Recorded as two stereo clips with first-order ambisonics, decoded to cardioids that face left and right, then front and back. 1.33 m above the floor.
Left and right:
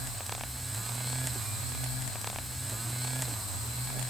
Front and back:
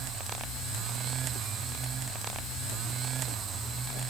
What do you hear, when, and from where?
Only background noise.